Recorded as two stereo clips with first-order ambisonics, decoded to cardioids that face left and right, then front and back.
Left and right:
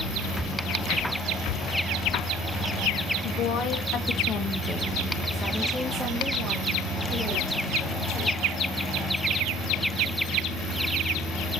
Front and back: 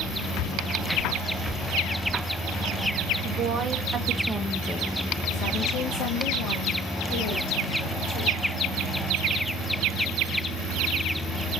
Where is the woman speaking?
135° left, 0.9 m; by 8.4 s 25° right, 2 m.